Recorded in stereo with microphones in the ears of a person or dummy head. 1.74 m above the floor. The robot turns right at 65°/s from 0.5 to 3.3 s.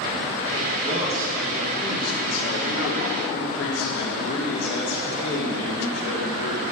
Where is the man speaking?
55° right, 2.5 m; by 6.6 s 110° left, 2.5 m.